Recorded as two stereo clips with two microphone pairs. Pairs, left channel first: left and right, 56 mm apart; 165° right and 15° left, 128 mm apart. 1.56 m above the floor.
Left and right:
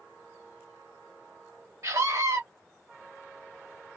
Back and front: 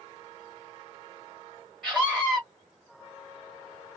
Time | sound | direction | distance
1.8 | a scream | 70° right | 0.9 m